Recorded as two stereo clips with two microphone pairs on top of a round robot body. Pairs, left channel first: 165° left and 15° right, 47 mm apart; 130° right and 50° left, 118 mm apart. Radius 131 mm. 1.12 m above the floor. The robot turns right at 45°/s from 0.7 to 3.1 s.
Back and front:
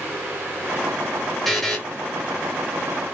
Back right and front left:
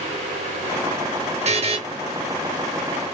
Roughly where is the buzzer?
Left.